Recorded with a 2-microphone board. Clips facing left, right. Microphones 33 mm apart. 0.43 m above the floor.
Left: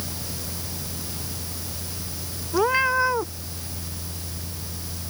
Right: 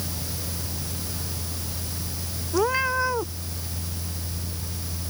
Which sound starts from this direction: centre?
A cat meowing, at 2.5 s.